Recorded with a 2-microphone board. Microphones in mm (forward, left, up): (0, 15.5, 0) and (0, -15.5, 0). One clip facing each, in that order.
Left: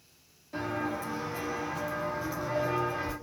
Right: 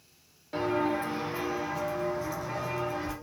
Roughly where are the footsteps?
Right.